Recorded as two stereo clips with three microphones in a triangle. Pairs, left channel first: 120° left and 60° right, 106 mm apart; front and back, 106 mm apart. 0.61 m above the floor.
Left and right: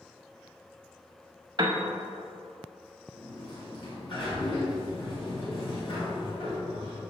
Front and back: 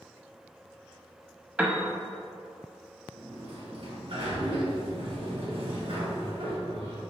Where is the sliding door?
155° left, 1.8 m.